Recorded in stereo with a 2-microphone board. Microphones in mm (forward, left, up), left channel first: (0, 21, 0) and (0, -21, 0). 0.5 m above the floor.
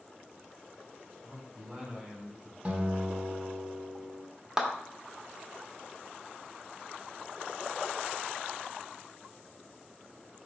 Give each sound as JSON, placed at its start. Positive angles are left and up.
{"t": 1.2, "sound": "a man speaking", "side_deg": -10, "distance_m": 2.0}
{"t": 2.6, "sound": "a guitar", "side_deg": -40, "distance_m": 1.2}
{"t": 4.6, "sound": "a clap", "side_deg": -15, "distance_m": 1.3}